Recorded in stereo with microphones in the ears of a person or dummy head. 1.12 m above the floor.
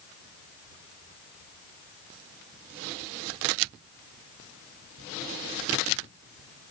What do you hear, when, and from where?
Only background noise.